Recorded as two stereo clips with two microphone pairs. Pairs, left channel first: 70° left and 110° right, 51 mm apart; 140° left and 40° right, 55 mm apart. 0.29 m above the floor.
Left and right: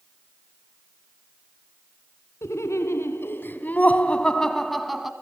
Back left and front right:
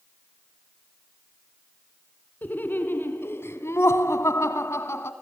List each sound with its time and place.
2.4 s laughter: 85° left, 2.5 m; by 5.1 s 170° left, 2 m